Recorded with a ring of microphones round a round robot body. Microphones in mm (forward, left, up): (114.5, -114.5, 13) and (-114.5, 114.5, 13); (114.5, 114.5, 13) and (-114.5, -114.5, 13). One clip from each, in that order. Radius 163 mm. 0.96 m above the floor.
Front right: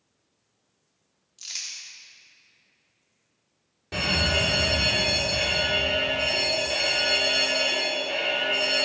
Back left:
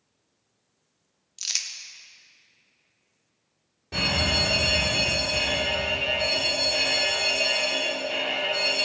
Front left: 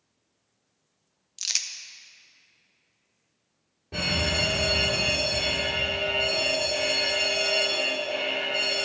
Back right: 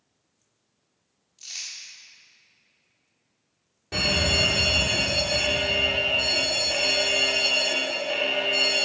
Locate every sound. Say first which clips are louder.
1.4 s crumpling: back left 6 dB, front left 8 dB; 75° left, 0.9 m
3.9 s a fire alarm: even, back right 4 dB; 115° right, 4 m